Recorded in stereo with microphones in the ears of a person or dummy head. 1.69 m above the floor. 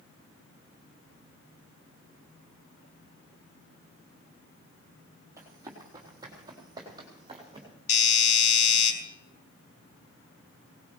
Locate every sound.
5.4 s running footsteps: 15° right (ahead or behind), 3.5 m; by 7.7 s 20° right (ahead or behind), 4.5 m
7.9 s a doorbell: 45° left (ahead or behind), 4 m